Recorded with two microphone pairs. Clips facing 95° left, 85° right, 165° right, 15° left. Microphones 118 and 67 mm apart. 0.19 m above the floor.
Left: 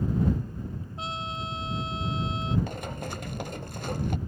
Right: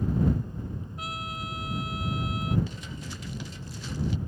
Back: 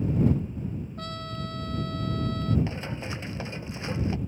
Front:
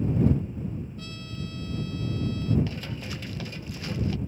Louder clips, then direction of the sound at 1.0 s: Left 4 dB, back 3 dB; 160° left.